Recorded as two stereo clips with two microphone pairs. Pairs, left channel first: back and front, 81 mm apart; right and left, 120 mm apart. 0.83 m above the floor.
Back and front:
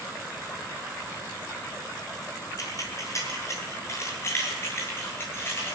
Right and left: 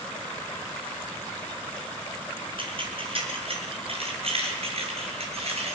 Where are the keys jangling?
130° left, 6 m; by 5.8 s 120° left, 9 m.